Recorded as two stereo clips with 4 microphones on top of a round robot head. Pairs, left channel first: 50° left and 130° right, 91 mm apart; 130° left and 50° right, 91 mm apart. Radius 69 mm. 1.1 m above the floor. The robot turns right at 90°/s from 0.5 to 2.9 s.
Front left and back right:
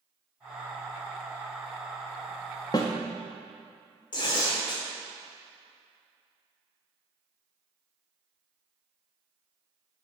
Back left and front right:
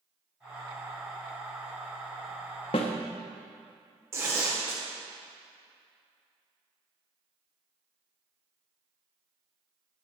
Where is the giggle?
I don't hear a giggle.